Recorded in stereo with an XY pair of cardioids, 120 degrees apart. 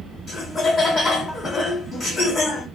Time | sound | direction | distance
0.3 | laughter | 40° left | 1.3 m